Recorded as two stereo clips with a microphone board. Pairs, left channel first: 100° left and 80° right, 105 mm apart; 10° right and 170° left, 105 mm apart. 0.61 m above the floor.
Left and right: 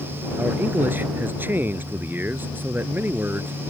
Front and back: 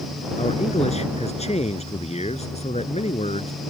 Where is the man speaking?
5° right.